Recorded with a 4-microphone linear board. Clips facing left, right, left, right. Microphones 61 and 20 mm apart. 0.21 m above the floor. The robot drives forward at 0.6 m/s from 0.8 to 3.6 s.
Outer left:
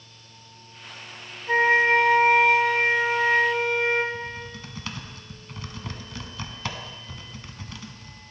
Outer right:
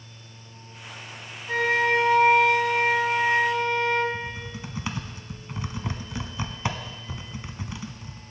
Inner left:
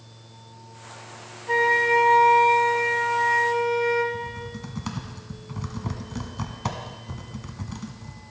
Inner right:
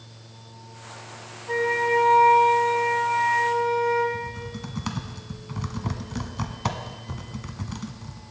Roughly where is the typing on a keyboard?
Centre.